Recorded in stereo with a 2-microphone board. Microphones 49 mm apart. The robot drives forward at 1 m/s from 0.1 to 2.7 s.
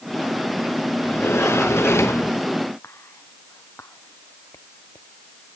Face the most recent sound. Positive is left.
turn(degrees=65)  # may be behind; listen again after turning